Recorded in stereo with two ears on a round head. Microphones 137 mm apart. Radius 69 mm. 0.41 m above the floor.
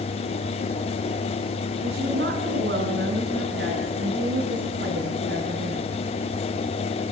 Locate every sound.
1.8 s a woman speaking: 75° right (ahead or behind), 4 m; by 5.8 s 70° right (ahead or behind), 6 m